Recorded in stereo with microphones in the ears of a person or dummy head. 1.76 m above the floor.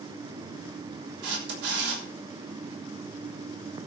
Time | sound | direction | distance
1.2 | a camera shutter | 70° right (ahead or behind) | 6 m